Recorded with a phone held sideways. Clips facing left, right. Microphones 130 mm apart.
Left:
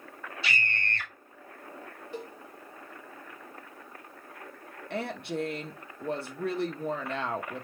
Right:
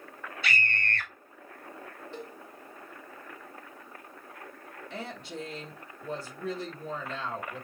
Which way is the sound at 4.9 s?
65° left (ahead or behind).